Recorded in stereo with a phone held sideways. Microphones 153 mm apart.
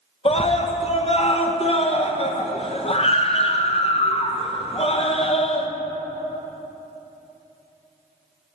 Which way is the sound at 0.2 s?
40° left (ahead or behind).